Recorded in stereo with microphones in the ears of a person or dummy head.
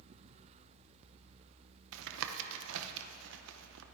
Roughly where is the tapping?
Right.